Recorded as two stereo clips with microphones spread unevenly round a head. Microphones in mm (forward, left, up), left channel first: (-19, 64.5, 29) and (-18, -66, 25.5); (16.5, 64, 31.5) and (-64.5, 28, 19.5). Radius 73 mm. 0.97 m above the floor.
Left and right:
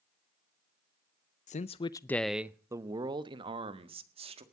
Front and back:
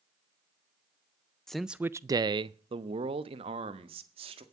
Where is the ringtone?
I don't hear a ringtone.